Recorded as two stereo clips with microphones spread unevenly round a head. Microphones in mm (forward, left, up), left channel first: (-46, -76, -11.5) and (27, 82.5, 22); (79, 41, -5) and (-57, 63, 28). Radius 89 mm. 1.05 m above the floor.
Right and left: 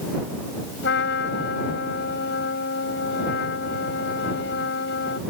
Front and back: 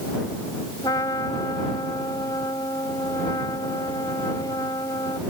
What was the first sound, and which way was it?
A trumpet, 85° right.